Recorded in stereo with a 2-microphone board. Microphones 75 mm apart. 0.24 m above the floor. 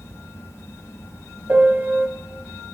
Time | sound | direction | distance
1.5 | a piano | 25° right (ahead or behind) | 1.2 m